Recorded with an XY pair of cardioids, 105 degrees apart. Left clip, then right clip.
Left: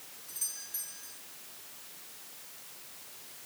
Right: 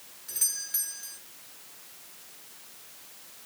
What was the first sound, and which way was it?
A doorbell, 55° right.